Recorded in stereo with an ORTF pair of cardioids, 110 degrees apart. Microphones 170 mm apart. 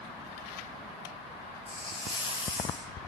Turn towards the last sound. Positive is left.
turn(degrees=25)